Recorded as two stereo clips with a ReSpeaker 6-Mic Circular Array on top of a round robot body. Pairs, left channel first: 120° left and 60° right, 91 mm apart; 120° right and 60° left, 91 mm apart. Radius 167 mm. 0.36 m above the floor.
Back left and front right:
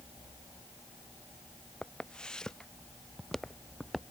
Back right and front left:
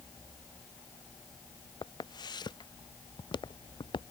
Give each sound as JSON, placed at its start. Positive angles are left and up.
{"t": 1.8, "sound": "footsteps", "azimuth_deg": -160}